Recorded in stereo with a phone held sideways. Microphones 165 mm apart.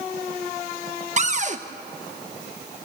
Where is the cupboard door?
45° right (ahead or behind), 1.0 m.